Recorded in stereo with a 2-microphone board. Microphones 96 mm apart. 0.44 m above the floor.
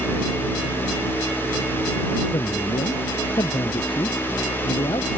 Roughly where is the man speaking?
Left.